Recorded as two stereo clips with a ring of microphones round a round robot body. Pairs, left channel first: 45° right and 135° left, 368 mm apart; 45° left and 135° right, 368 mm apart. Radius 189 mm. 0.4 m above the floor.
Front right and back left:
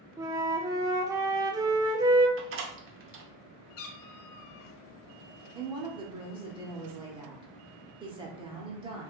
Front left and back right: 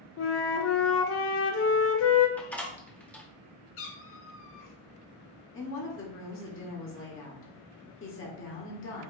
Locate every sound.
0.2 s a flute: 60° left, 0.5 m
2.4 s a door slam: 130° left, 0.7 m
3.8 s a cat meowing: 10° right, 0.6 m
5.5 s a woman speaking: 65° left, 1.0 m